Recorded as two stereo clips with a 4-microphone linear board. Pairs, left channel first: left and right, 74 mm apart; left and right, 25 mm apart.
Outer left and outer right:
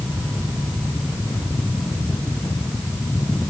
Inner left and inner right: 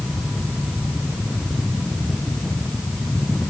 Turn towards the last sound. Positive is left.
No sound to turn to.